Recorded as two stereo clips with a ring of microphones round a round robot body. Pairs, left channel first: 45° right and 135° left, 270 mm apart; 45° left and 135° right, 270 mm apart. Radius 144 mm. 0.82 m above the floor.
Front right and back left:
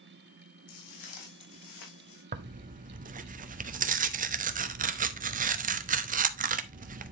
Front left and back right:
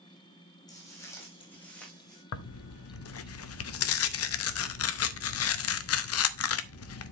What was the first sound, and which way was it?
Footsteps, 30° right.